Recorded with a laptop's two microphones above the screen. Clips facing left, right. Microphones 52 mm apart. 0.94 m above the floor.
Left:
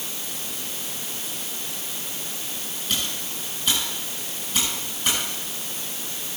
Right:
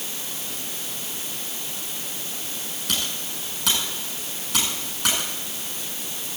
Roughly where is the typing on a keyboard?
Right.